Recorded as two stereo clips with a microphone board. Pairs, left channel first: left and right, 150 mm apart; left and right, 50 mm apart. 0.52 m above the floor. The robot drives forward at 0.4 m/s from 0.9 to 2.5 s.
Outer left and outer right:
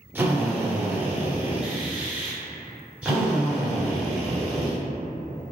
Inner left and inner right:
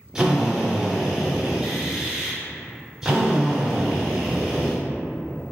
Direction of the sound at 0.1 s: 15° right (ahead or behind).